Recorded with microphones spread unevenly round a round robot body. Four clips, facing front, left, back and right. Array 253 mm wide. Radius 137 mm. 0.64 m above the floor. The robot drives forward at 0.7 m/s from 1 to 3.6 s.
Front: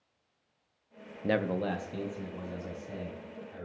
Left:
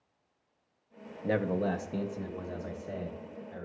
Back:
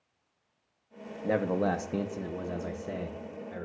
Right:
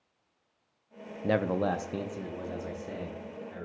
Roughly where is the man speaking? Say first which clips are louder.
Right 2 dB, back 2 dB; ahead right.